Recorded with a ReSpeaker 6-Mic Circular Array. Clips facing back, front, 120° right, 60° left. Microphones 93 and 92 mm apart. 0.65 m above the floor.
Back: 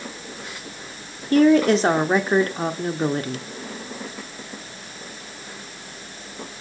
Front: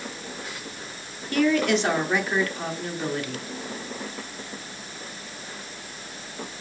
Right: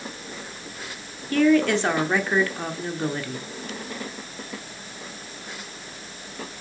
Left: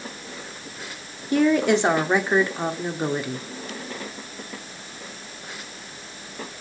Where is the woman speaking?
130° left, 1.1 m.